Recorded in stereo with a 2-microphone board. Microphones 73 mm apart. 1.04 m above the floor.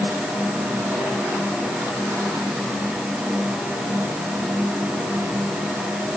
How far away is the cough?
No cough in this recording.